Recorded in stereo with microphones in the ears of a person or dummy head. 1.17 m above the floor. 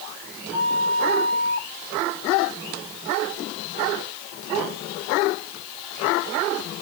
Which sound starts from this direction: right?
A flute, at 0.5 s.